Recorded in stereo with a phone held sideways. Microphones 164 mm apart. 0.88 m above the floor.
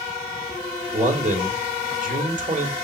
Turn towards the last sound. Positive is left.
turn(degrees=-55)  # may be behind; listen again after turning